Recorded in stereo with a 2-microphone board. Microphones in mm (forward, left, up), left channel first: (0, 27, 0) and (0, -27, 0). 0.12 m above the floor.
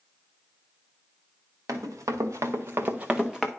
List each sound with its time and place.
1.7 s running footsteps: 90° right, 1.4 m; by 3.5 s 5° left (ahead or behind), 0.9 m